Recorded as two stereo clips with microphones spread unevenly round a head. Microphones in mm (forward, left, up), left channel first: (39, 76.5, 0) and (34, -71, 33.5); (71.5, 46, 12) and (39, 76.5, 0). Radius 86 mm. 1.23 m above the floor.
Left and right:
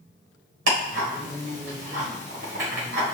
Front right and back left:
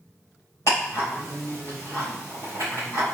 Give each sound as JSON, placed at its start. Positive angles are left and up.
{"t": 0.7, "sound": "ticking", "azimuth_deg": -105, "distance_m": 4.0}